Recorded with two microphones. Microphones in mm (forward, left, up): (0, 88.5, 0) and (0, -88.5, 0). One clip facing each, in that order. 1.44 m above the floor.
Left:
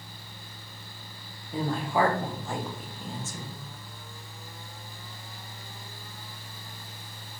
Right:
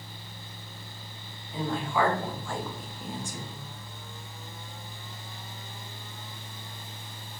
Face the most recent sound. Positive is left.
turn(degrees=-25)  # may be behind; listen again after turning